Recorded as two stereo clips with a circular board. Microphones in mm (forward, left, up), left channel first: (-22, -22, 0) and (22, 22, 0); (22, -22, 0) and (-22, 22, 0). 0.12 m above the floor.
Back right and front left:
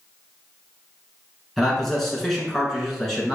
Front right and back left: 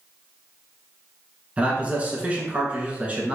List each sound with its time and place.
1.6 s a man speaking: 145° left, 1.1 m